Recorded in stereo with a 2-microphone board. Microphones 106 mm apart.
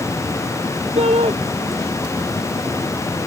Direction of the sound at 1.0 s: 75° right (ahead or behind).